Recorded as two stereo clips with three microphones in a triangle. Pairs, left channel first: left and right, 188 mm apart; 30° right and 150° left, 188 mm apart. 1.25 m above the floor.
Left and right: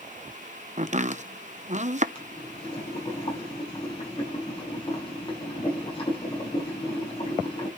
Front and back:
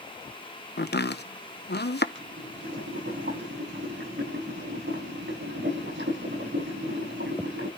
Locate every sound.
0.8 s chopping: 45° right, 0.9 m
2.1 s boiling: 150° left, 7.5 m